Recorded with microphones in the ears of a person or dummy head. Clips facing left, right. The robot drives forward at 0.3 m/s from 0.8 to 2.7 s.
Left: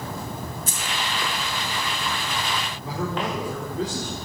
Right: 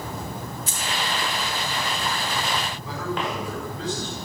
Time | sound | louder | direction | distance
0.7 | keys jangling | right 1 dB | 45° left (ahead or behind) | 2 m
2.8 | a man speaking | left 4 dB | 35° left (ahead or behind) | 4 m